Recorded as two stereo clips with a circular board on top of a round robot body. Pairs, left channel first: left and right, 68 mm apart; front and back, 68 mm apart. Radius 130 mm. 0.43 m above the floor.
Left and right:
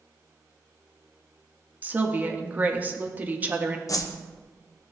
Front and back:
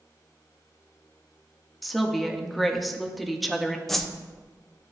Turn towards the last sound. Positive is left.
turn(degrees=85)